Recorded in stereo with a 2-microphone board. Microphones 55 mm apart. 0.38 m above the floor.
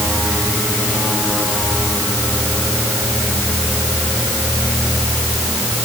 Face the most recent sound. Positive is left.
No sound to turn to.